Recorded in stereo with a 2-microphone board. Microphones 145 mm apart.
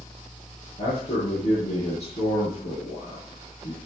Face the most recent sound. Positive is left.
turn(degrees=45)  # may be behind; listen again after turning